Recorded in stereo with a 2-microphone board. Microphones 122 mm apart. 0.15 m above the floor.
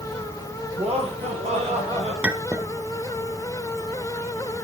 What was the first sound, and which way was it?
Laughter, 55° right (ahead or behind).